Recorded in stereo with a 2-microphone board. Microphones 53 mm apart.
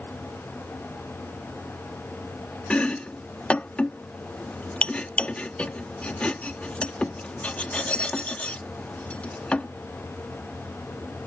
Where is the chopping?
25° left (ahead or behind).